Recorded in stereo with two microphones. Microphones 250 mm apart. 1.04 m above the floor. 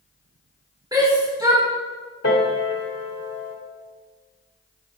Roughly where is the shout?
Centre.